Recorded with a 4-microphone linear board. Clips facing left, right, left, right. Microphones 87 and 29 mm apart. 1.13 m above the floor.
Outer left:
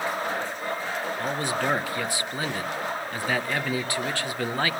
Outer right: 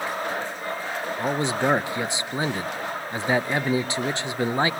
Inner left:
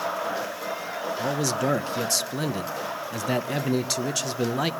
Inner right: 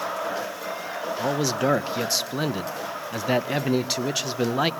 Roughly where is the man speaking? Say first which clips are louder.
Outer right 5 dB, inner right 2 dB; centre.